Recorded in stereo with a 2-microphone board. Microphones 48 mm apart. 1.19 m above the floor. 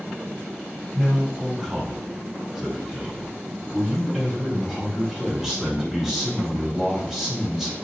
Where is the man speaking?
5° right (ahead or behind), 3 m.